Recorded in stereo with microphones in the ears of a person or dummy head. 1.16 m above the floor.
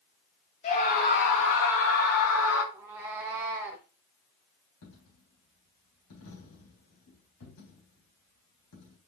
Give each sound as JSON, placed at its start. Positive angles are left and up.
{"t": 0.6, "sound": "a scream", "side_deg": 35, "distance_m": 1.8}
{"t": 2.7, "sound": "a cat meowing", "side_deg": -10, "distance_m": 1.0}
{"t": 4.8, "sound": "a dropped coin", "side_deg": 80, "distance_m": 4.0}